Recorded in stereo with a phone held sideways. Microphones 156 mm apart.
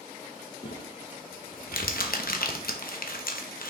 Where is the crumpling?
70° left (ahead or behind), 0.9 m.